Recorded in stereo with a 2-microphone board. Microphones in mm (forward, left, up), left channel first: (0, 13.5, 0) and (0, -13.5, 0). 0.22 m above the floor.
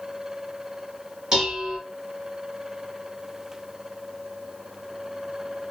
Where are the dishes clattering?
20° right (ahead or behind), 1.3 m.